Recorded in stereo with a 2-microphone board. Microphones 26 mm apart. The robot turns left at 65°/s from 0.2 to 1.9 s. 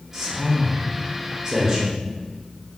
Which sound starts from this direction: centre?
A man speaking, at 0.1 s.